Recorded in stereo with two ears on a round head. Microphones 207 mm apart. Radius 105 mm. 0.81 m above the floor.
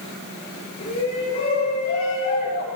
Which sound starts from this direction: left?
A shout, at 0.8 s.